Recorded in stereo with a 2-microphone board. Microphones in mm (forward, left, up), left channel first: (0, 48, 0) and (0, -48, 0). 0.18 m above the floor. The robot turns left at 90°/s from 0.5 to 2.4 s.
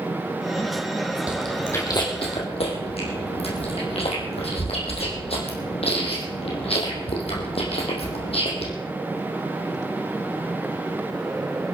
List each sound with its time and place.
1.3 s chewing: 15° right (ahead or behind), 4 m; by 8.7 s 80° left, 4 m